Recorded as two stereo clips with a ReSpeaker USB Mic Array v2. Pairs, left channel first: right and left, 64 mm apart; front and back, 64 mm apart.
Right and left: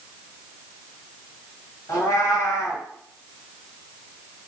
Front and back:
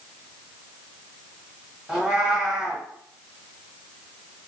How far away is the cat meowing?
About 1.2 m.